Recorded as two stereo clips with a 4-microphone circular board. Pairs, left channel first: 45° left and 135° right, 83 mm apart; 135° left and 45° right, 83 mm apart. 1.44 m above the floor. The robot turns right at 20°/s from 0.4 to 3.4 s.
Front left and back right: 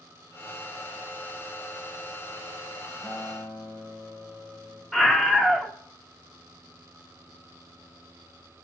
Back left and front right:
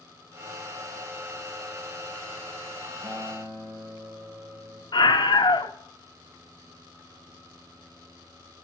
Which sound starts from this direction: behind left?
A scream, at 4.9 s.